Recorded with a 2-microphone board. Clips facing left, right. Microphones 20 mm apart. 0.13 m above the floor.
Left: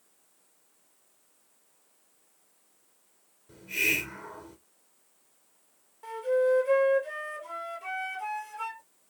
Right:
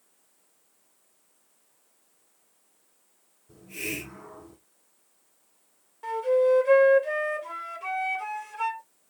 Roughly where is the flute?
Right.